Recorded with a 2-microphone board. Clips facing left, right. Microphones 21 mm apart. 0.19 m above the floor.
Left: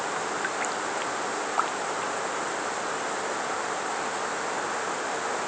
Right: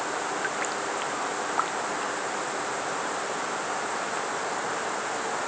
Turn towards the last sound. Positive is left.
No sound to turn to.